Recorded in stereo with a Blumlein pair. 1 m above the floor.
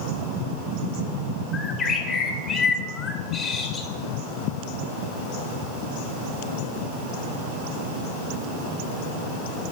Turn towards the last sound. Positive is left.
turn(degrees=15)